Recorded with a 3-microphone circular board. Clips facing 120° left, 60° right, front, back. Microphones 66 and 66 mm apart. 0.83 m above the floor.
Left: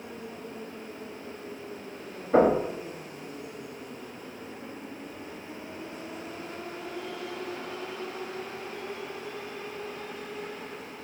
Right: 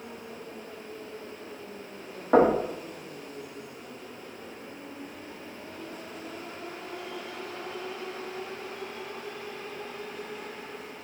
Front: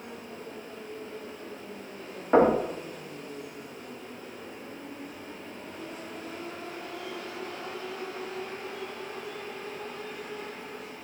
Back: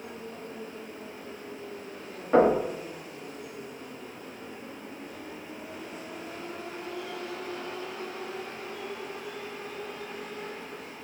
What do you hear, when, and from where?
2.3 s knocking: 75° right, 1.3 m